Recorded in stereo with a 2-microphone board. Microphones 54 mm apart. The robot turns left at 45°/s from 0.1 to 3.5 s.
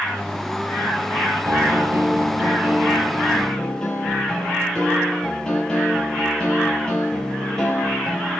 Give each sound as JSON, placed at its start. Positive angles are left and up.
{"t": 1.4, "sound": "a piano", "azimuth_deg": -100, "distance_m": 6.0}